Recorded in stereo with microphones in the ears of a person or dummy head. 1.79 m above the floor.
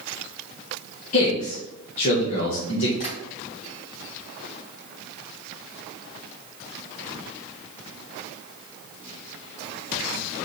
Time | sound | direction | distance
1.1 | a man speaking | 35° left (ahead or behind) | 1.3 m
3.0 | tapping | 60° left (ahead or behind) | 2.5 m